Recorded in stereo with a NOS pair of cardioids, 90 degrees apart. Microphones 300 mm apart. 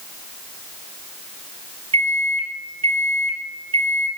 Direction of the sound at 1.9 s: 20° right.